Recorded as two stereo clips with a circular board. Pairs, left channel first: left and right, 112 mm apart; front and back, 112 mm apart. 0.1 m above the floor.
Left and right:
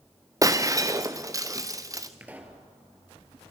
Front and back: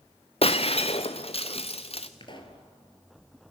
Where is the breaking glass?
30° right, 1.1 m.